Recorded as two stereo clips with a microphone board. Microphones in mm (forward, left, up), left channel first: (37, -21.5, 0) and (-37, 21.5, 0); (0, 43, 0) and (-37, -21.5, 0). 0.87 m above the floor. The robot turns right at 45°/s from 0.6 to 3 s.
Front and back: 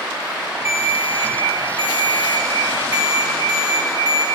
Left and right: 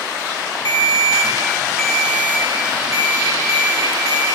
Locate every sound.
0.7 s a ringtone: 90° left, 1.1 m; by 4.2 s 165° right, 1.1 m